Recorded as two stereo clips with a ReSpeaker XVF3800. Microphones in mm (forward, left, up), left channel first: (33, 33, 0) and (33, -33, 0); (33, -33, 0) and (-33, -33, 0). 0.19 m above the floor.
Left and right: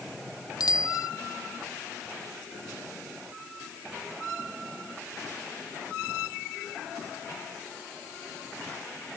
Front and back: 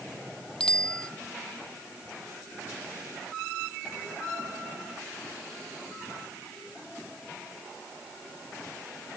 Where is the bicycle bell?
80° left.